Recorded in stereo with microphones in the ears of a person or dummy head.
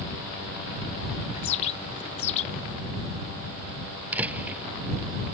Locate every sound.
1.3 s a bird: 35° left (ahead or behind)
4.1 s a door slam: 10° right (ahead or behind)